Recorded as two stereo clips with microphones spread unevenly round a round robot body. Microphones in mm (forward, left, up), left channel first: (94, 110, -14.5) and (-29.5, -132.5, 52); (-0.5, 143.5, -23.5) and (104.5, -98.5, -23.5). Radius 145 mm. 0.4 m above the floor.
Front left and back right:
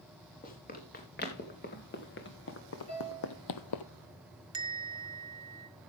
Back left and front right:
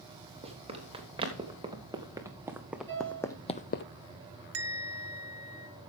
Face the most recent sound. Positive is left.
turn(degrees=-40)